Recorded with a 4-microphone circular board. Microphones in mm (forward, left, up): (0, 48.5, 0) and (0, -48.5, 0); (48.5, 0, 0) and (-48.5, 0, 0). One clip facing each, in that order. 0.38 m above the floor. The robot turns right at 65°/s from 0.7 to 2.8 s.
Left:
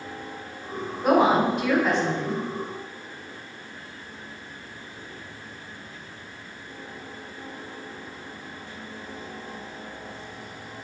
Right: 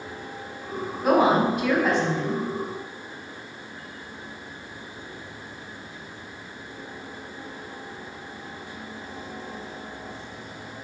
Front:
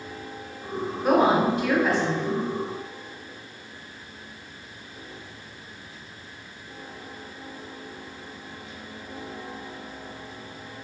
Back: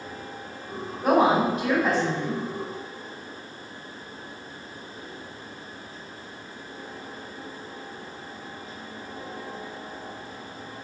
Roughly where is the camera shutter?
No camera shutter in this recording.